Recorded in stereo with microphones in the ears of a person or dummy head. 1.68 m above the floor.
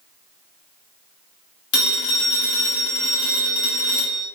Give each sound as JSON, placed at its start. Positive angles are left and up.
{"t": 1.7, "sound": "a phone ringing", "side_deg": 55, "distance_m": 1.1}